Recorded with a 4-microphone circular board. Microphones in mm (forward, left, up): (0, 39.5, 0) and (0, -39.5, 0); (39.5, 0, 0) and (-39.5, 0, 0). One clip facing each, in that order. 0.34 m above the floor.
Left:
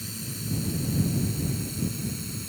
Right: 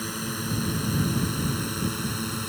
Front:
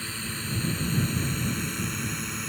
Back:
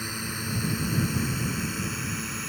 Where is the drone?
105° right; by 2.5 s 90° right.